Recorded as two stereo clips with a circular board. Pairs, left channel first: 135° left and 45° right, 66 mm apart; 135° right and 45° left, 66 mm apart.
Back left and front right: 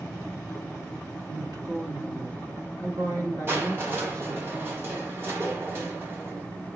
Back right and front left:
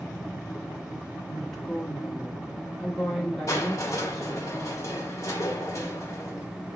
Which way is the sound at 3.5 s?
95° right.